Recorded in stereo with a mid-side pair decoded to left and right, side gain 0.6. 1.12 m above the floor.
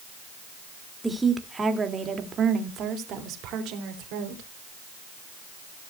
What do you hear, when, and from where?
1.0 s a woman speaking: 10° right, 2.5 m; by 4.5 s 75° right, 3.5 m